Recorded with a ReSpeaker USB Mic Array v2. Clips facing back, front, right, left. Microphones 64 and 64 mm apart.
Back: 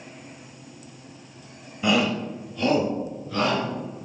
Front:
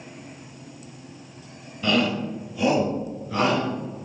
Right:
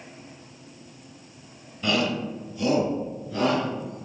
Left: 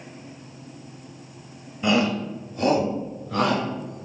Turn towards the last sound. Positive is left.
turn(degrees=70)